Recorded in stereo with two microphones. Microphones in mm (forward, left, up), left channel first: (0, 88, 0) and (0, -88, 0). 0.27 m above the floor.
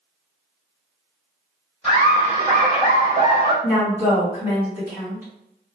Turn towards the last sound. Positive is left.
turn(degrees=-15)  # may be behind; listen again after turning